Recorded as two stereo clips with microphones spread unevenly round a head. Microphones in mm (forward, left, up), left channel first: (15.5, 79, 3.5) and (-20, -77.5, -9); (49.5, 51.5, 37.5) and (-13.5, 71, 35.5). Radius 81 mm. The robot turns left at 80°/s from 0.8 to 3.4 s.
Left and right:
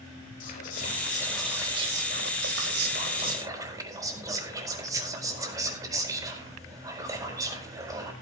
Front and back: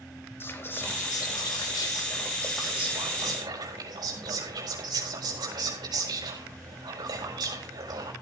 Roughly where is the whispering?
Ahead left.